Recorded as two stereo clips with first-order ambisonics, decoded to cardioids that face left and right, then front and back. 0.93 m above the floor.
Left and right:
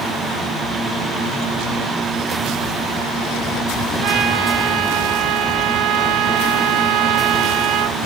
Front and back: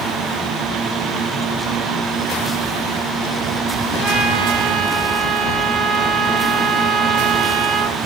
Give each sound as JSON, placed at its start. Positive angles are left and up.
{"t": 4.0, "sound": "a trumpet", "azimuth_deg": -125, "distance_m": 0.7}